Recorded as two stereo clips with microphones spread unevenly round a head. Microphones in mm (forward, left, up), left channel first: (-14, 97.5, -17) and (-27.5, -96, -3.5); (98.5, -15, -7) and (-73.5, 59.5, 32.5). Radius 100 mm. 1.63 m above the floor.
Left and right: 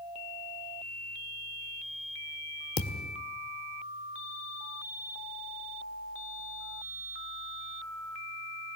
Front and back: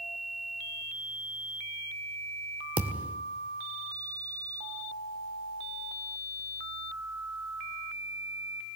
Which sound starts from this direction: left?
A thud, at 2.8 s.